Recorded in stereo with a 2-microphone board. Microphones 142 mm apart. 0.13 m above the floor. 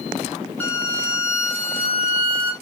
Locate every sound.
0.6 s a violin: 15° left (ahead or behind), 1.4 m